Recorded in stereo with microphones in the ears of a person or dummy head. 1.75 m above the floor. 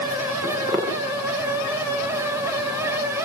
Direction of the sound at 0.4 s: 15° right (ahead or behind).